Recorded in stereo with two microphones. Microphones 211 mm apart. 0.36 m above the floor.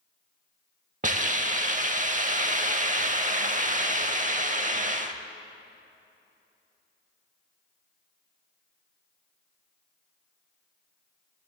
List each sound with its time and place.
1.0 s a hiss: 35° right (ahead or behind), 0.5 m